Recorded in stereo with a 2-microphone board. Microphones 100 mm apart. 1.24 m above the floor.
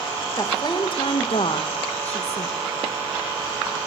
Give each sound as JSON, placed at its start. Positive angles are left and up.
{"t": 0.4, "sound": "a woman speaking", "side_deg": 35, "distance_m": 1.4}